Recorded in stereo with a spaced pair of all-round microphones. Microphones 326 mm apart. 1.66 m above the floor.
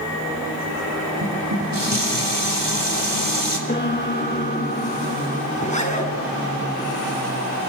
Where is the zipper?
20° left (ahead or behind), 6.5 m.